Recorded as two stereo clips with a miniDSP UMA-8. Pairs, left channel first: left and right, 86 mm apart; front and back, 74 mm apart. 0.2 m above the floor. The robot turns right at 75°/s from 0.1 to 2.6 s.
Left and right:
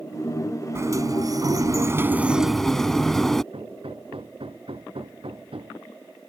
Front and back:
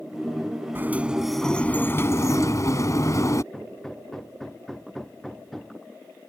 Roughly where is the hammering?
Right.